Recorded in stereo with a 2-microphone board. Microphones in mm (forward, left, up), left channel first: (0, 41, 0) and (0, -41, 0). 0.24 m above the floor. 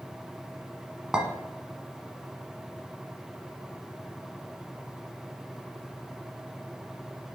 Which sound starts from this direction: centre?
A clink, at 1.1 s.